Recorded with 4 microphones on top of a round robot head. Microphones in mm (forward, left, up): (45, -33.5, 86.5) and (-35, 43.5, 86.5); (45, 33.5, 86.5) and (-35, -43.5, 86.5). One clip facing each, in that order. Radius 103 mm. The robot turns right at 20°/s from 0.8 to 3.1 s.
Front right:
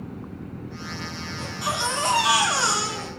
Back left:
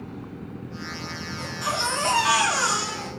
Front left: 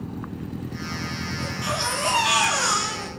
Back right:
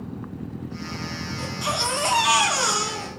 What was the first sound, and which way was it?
A baby crying, 130° right.